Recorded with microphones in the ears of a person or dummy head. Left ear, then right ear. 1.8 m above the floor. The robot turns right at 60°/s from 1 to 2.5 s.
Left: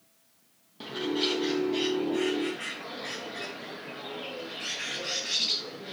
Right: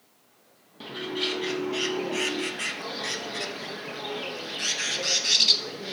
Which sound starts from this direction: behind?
A bird, at 0.8 s.